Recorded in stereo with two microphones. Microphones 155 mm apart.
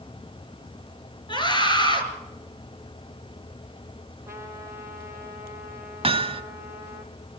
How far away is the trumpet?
About 3 m.